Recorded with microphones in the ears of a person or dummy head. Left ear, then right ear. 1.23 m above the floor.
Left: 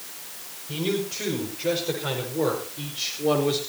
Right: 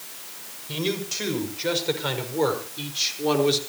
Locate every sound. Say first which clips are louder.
0.7 s a man speaking: even; 35° right (ahead or behind), 6.5 m